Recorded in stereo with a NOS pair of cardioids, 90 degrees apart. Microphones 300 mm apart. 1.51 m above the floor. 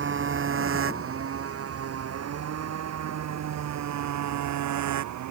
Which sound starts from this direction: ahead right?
A motorcycle, at 0.0 s.